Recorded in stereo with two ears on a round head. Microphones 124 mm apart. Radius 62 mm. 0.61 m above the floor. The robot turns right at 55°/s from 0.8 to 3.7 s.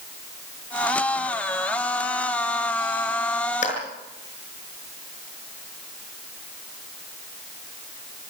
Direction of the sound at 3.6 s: 55° left (ahead or behind).